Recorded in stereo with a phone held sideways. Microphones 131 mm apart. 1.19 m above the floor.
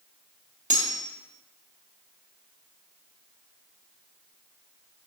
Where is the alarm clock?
No alarm clock in this recording.